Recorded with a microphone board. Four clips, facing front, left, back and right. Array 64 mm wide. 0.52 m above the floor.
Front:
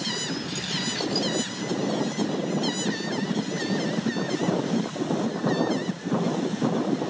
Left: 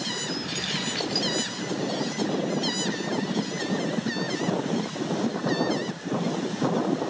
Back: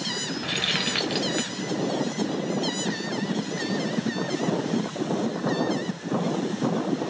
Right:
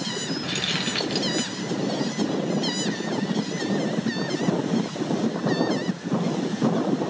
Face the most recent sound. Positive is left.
turn(degrees=-165)